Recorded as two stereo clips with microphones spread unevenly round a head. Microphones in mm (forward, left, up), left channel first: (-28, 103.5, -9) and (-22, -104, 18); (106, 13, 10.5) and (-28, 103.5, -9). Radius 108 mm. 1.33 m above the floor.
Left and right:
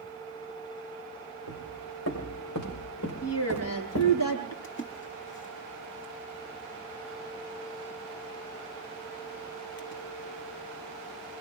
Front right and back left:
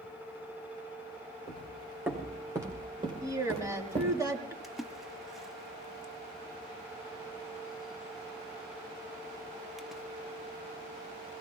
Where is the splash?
55° left, 1.1 m.